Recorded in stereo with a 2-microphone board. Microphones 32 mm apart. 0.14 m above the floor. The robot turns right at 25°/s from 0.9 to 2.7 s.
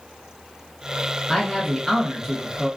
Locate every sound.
1.3 s a man speaking: 5° left (ahead or behind), 1.5 m; by 2.7 s 15° right (ahead or behind), 1.5 m